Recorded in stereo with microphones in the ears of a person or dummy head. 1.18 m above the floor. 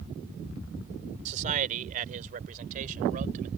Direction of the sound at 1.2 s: 40° right (ahead or behind).